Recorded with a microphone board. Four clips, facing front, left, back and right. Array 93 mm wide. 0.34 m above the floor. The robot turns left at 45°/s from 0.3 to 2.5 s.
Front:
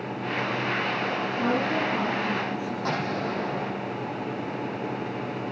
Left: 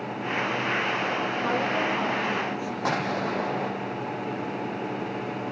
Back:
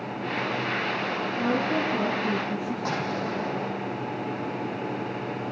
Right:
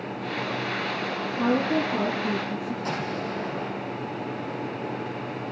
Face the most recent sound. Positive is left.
turn(degrees=95)